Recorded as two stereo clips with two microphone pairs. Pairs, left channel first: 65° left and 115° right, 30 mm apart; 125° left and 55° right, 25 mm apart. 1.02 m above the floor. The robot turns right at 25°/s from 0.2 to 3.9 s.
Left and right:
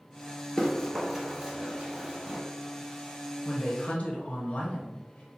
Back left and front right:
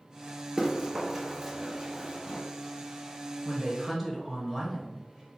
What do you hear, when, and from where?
0.6 s running footsteps: 15° left, 1.0 m; by 2.4 s 90° right, 1.4 m
3.5 s a woman speaking: 30° left, 0.7 m; by 5.4 s 45° left, 0.7 m